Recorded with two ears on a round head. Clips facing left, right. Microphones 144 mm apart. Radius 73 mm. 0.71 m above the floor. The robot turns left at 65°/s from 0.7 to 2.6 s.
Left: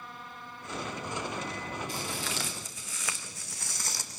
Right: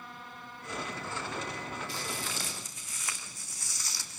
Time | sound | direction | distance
1.9 | footsteps | 45° left (ahead or behind) | 3.5 m